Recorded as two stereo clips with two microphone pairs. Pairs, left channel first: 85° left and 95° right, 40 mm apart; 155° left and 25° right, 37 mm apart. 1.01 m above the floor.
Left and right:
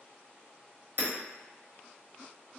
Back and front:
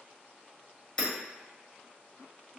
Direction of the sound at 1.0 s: 135° right.